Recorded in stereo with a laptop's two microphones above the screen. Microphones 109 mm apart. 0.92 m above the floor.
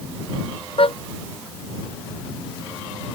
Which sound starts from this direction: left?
A car horn, at 0.8 s.